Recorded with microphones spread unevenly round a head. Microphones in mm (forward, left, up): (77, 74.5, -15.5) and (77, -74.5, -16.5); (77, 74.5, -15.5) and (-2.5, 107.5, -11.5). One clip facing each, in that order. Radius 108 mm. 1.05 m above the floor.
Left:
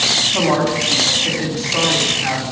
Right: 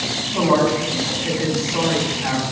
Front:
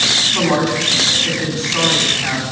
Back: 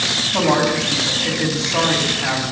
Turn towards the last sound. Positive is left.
turn(degrees=150)